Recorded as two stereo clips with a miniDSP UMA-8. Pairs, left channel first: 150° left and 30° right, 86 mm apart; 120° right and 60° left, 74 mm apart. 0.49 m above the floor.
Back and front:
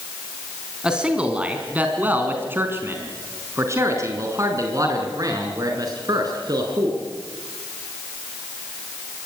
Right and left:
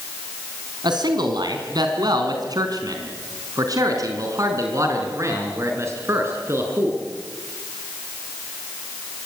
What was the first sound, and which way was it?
A man speaking, 50° left.